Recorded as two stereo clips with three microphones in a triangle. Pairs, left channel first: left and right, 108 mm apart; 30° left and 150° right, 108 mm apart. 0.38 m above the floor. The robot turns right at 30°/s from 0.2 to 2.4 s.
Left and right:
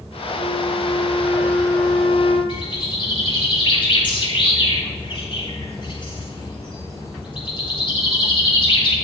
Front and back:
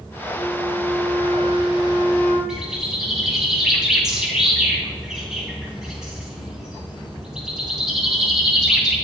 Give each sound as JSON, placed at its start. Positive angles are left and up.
{"t": 0.4, "sound": "a flute", "azimuth_deg": 150, "distance_m": 2.0}
{"t": 2.5, "sound": "a bird", "azimuth_deg": 125, "distance_m": 3.0}